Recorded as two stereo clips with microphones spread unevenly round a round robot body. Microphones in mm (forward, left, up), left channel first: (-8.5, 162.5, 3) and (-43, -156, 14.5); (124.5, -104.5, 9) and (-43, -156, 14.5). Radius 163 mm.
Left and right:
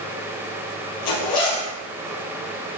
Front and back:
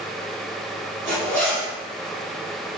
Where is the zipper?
100° left, 3.5 m.